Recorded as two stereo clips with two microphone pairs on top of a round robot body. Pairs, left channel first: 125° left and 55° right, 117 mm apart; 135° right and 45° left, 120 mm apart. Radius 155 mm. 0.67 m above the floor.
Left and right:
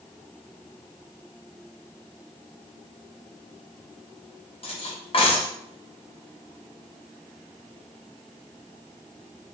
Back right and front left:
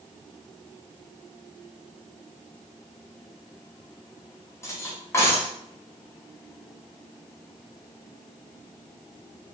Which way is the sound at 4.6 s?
160° left.